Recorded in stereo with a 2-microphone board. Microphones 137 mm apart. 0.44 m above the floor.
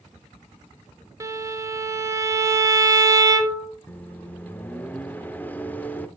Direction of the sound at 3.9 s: 15° left (ahead or behind).